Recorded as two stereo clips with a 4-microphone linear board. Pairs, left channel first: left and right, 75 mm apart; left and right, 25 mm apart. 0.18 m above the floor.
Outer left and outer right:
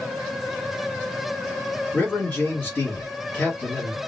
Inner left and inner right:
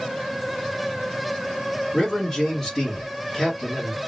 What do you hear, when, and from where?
1.9 s a man speaking: 25° left (ahead or behind), 1.7 m